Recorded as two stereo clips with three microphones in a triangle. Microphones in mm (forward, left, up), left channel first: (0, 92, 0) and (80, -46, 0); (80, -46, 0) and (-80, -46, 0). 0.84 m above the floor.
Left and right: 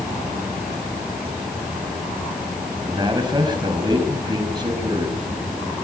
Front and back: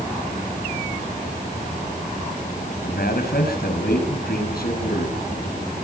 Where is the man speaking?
Straight ahead, 6.5 m.